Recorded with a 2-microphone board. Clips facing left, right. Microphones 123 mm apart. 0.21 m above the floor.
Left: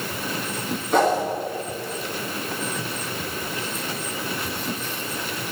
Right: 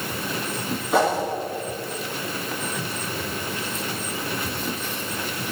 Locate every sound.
0.9 s a whoosh: 10° right (ahead or behind), 2 m